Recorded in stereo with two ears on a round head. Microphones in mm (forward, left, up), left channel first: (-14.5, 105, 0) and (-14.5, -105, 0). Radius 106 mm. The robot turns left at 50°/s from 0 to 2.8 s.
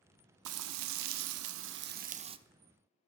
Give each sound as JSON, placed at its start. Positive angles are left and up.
{"t": 0.5, "sound": "frying", "azimuth_deg": -60, "distance_m": 0.5}